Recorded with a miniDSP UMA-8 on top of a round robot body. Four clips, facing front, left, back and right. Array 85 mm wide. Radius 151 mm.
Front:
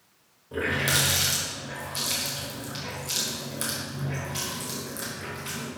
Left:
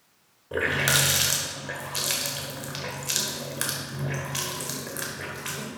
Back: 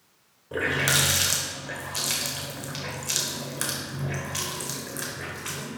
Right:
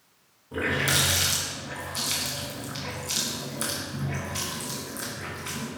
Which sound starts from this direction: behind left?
A running tap, at 0.5 s.